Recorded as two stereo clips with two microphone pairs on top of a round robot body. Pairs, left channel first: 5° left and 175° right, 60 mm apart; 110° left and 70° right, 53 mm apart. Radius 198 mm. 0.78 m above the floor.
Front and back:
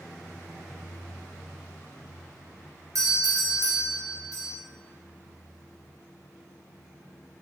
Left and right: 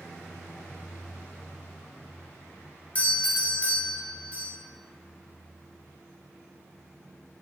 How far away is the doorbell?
About 1.2 m.